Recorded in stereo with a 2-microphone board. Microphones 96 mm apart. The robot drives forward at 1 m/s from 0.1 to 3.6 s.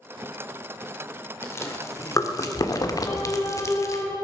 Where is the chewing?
25° left (ahead or behind), 2 m; by 4.0 s 35° left (ahead or behind), 1.7 m.